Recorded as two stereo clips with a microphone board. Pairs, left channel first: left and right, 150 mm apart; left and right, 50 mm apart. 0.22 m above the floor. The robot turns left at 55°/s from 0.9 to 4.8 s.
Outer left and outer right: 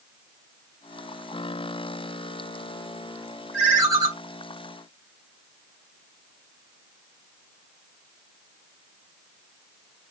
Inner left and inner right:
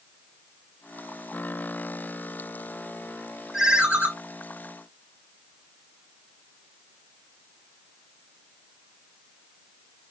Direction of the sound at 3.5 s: Straight ahead.